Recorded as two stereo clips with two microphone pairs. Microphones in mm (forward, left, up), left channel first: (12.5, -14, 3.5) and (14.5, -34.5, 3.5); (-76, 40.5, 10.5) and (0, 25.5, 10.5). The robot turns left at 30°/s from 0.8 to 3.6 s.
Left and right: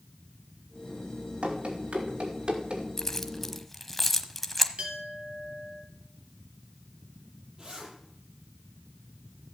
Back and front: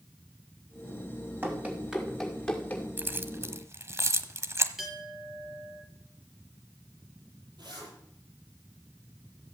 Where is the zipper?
30° right, 7 m.